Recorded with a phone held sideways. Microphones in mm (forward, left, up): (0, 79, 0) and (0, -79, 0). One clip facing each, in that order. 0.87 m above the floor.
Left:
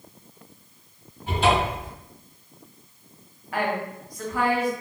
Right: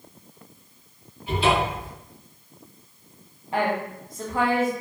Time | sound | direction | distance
1.3 | a cupboard door | 50° left (ahead or behind) | 1.3 m
3.5 | a woman speaking | 25° right (ahead or behind) | 0.7 m